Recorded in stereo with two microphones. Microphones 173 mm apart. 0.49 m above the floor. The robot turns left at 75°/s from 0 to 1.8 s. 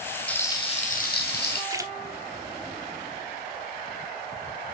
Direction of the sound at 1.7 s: 20° right (ahead or behind).